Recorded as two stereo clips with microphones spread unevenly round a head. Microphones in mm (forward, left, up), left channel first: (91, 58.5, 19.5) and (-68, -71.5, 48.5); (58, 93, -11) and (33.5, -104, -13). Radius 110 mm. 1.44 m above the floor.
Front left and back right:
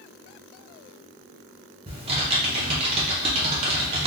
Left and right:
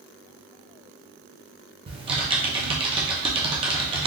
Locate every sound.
1.9 s typing on a keyboard: 135° right, 0.6 m